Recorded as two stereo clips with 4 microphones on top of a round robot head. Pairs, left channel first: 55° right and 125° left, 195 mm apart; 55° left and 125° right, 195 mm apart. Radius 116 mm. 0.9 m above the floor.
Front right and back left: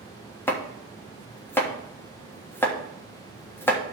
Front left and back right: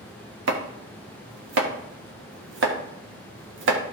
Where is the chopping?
135° right, 1.3 m.